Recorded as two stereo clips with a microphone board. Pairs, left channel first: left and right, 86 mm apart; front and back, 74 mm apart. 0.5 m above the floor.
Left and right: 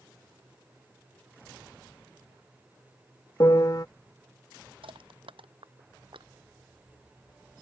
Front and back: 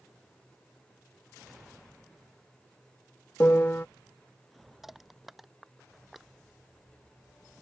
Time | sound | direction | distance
3.4 | a piano | 55° left | ?
4.8 | crushing | 95° right | ?